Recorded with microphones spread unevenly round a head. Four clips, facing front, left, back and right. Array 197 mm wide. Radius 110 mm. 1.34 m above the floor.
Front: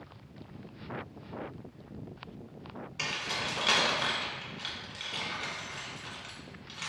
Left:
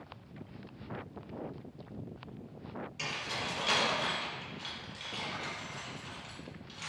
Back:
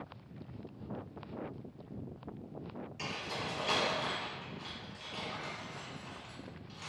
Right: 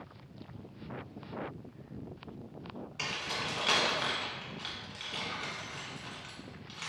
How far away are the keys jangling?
About 1.1 m.